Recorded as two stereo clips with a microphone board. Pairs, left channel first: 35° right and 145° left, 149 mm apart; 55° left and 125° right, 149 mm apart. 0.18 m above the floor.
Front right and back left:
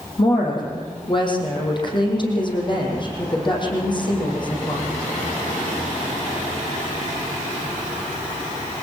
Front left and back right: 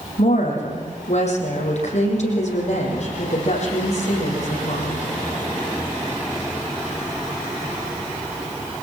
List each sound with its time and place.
0.2 s a woman speaking: 20° left, 6.5 m